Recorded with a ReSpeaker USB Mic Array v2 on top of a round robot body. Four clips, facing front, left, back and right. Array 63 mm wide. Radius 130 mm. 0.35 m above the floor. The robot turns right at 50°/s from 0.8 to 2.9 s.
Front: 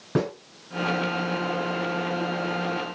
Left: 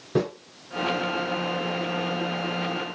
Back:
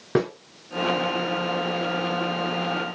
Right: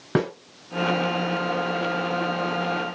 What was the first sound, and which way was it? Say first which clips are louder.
A snare drum: right 1 dB, back 3 dB; 110° right.